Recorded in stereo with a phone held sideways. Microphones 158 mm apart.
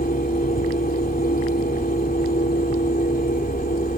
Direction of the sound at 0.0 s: 70° left (ahead or behind).